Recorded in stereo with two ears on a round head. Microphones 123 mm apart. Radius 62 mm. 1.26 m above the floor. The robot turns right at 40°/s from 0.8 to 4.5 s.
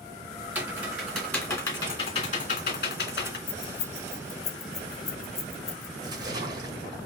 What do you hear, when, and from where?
0.6 s typing on a keyboard: 10° right (ahead or behind), 2 m; by 3.4 s 85° left, 2 m
3.5 s keys jangling: 65° left (ahead or behind), 1.4 m; by 5.9 s 25° left (ahead or behind), 1.4 m
6.0 s a splash: 30° right (ahead or behind), 1.6 m